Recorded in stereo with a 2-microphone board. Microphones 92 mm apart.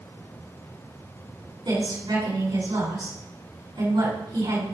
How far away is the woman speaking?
About 5 m.